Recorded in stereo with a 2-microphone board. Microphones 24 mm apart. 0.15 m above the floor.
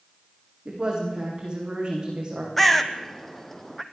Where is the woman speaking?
30° right (ahead or behind), 9.5 m; by 2.5 s 35° right (ahead or behind), 10.5 m.